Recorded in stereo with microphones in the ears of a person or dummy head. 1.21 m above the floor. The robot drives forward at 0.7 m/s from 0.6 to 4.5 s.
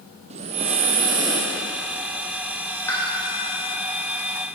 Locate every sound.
0.3 s breathing: 30° right (ahead or behind), 0.6 m; by 1.5 s 15° right (ahead or behind), 1.1 m
2.9 s a pop: 20° left (ahead or behind), 1.5 m; by 3.0 s 15° left (ahead or behind), 1.6 m